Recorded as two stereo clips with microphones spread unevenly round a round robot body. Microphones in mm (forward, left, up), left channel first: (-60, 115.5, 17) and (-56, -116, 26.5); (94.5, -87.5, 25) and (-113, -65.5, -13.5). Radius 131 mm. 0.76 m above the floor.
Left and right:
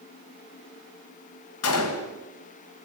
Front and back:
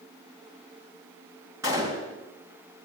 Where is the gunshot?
95° left, 3 m.